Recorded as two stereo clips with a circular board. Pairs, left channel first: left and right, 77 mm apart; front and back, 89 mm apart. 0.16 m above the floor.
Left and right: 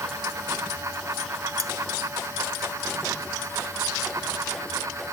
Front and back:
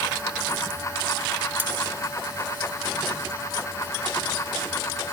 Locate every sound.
1.6 s cutlery clinking: 115° right